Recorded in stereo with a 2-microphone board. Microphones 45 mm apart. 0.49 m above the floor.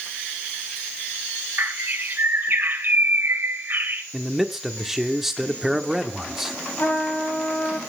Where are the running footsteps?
I don't hear running footsteps.